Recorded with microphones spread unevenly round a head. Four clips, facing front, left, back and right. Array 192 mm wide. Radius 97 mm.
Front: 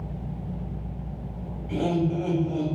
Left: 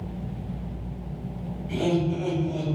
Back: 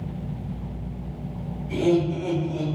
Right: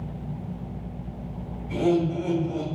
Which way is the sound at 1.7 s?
55° left.